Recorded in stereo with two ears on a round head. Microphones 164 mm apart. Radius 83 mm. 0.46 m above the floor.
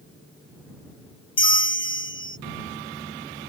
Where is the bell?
30° left (ahead or behind).